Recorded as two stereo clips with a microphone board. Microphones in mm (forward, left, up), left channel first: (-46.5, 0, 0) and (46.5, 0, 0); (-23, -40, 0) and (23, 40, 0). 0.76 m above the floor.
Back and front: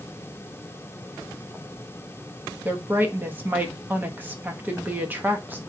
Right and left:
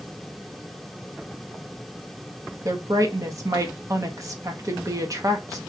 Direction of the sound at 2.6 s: 55° left.